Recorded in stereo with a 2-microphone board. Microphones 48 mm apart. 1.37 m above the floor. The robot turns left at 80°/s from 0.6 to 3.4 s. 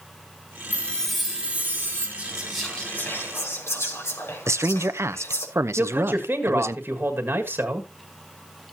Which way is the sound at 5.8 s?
55° right (ahead or behind).